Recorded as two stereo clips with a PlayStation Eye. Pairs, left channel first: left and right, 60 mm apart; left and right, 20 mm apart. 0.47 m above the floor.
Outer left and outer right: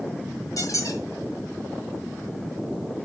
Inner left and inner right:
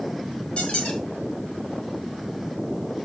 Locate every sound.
0.6 s a squeak: 70° left (ahead or behind), 4.5 m